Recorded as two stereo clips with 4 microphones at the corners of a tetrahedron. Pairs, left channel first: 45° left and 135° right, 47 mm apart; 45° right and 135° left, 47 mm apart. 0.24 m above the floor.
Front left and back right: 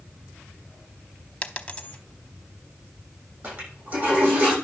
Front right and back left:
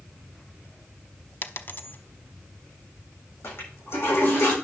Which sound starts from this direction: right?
A toilet flushing, at 3.4 s.